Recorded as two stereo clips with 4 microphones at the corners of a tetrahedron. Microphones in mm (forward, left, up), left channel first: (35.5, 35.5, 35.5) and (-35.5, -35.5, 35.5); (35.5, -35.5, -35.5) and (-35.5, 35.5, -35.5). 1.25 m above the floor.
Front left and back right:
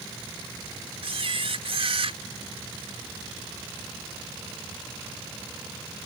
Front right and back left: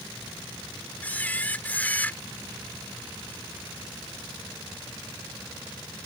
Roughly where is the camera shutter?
Behind right.